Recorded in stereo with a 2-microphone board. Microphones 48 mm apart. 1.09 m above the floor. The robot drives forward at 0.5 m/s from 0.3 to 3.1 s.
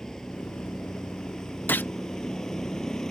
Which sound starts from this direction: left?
A gunshot, at 1.7 s.